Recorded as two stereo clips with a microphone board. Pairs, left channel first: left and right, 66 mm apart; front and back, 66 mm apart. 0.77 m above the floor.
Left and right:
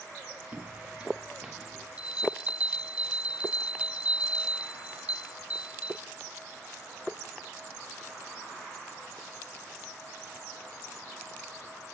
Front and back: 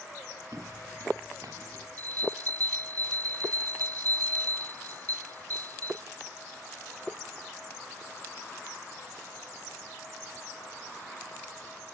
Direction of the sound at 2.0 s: 160° right.